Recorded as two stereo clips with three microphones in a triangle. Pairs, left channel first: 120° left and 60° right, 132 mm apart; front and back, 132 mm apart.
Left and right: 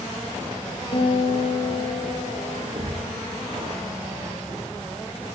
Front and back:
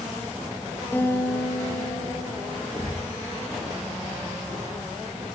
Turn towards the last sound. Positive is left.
turn(degrees=-65)